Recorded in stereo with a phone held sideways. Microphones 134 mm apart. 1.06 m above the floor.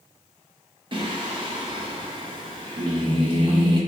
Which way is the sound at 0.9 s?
40° right (ahead or behind).